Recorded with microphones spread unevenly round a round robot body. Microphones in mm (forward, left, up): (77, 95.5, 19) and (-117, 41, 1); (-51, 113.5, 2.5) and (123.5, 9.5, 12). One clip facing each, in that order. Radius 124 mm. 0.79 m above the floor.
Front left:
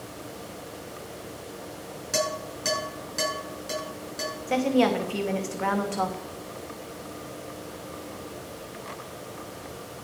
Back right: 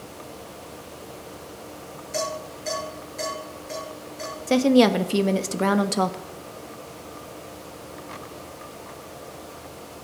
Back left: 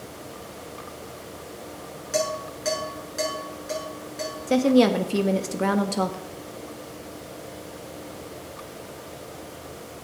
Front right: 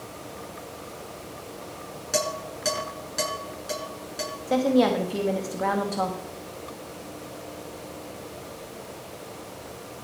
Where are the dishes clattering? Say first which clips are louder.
Front left 1 dB, back left 2 dB; 15° left, 6.5 m.